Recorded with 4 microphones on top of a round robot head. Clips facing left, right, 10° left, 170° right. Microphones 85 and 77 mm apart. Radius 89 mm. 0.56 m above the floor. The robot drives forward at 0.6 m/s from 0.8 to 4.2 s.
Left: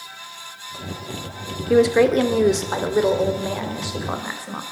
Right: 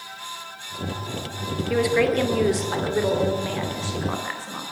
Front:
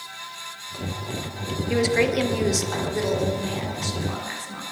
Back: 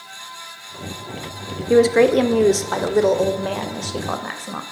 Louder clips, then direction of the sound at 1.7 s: Left 6 dB, back 8 dB; 150° left.